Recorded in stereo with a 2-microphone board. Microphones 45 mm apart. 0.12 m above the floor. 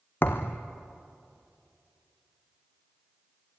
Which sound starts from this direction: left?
A thud, at 0.2 s.